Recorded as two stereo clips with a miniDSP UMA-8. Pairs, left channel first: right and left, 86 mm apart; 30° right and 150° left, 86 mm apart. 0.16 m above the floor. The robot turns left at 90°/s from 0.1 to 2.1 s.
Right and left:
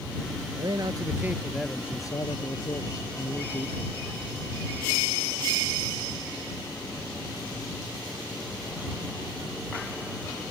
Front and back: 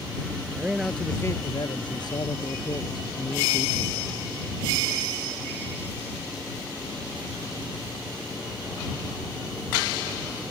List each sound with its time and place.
0.6 s a man speaking: 85° left; by 4.1 s 50° right